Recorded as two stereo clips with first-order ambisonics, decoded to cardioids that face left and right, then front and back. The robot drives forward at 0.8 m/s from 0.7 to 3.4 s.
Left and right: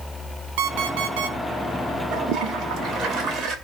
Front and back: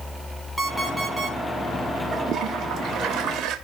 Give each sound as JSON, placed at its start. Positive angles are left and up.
{"t": 0.6, "sound": "an alarm clock", "azimuth_deg": -95, "distance_m": 3.5}
{"t": 2.1, "sound": "a toilet flushing", "azimuth_deg": -125, "distance_m": 2.0}